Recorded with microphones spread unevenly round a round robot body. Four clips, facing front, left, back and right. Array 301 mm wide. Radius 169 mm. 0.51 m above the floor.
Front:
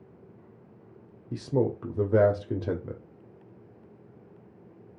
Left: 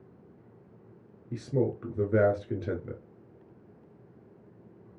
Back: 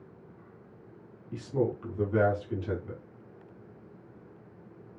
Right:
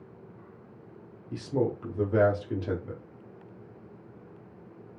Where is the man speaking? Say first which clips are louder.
Even, front 3 dB; 5° left, 0.9 m.